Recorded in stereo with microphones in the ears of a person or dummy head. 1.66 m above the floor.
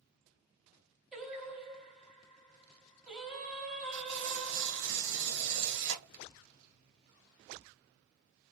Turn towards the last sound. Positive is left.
turn(degrees=-65)  # may be behind; listen again after turning